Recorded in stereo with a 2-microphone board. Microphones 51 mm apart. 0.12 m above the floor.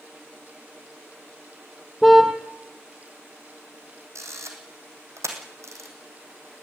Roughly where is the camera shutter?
Right.